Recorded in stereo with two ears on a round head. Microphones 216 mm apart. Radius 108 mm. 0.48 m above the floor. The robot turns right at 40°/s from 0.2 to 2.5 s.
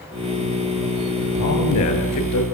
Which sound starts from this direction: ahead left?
A man speaking, at 1.4 s.